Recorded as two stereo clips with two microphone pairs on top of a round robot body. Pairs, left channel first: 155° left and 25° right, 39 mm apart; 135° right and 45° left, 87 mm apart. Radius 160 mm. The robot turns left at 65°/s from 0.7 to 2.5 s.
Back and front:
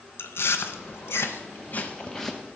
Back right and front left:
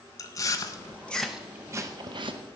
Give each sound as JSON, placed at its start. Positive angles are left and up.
{"t": 0.2, "sound": "chewing", "azimuth_deg": 175, "distance_m": 0.7}